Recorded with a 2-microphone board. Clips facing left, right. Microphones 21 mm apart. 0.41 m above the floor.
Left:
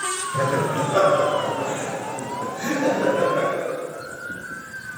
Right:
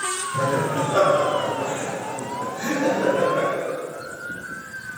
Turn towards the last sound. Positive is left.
turn(degrees=30)  # may be behind; listen again after turning